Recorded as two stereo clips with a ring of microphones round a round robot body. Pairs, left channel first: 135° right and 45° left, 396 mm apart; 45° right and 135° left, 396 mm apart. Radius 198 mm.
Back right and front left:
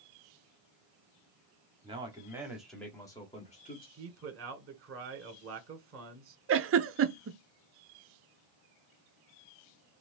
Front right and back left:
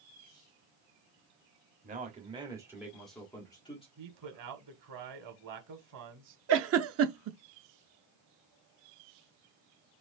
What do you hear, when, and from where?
1.8 s a man speaking: 100° left, 1.4 m; by 3.9 s 100° right, 1.4 m
4.0 s a man speaking: 100° left, 1.4 m
6.5 s a giggle: 90° left, 0.5 m